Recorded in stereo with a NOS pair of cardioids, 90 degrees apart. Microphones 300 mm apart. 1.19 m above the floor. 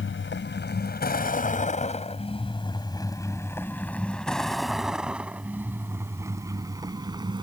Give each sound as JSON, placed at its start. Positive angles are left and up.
{"t": 0.0, "sound": "a vehicle", "azimuth_deg": 40}